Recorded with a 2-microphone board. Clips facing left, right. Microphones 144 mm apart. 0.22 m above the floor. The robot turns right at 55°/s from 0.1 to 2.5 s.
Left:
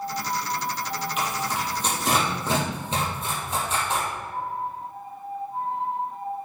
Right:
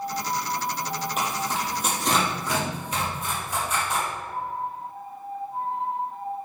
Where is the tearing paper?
45° right (ahead or behind), 4 m; by 4.0 s 25° left (ahead or behind), 4 m.